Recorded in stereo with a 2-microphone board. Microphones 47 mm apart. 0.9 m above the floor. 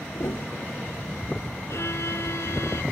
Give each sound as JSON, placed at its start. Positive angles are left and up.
{"t": 0.1, "sound": "a piano", "side_deg": 70}
{"t": 1.7, "sound": "a violin", "side_deg": 65}